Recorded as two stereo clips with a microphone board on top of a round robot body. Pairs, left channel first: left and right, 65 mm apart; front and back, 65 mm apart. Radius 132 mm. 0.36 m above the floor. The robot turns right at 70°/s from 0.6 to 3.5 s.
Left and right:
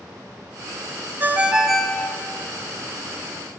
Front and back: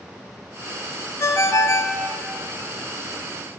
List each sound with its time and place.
1.2 s a ringtone: 40° right, 0.8 m; by 2.0 s 20° left, 0.8 m